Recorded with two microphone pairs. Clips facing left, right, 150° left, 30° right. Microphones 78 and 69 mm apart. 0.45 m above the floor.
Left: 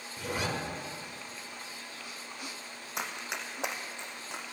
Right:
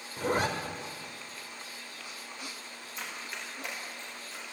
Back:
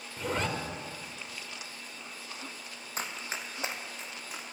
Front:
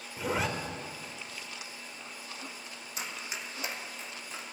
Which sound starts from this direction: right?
A zipper, at 0.2 s.